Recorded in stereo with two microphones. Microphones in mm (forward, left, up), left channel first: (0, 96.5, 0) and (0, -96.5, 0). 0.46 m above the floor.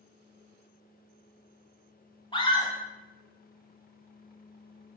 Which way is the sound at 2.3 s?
25° left (ahead or behind).